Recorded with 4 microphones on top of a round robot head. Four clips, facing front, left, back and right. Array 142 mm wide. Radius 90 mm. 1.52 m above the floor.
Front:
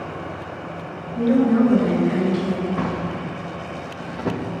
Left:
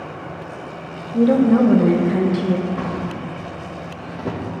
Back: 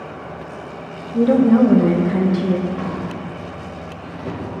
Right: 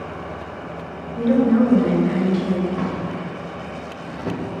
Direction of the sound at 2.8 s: 15° left.